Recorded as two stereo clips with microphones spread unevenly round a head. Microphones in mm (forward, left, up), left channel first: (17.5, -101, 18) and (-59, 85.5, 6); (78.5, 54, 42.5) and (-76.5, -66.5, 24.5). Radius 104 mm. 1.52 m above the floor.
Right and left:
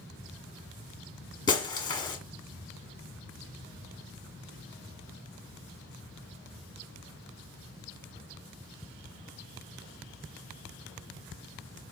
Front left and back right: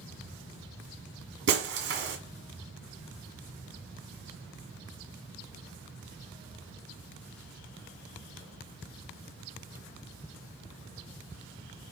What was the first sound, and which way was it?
Breaking glass, 125° right.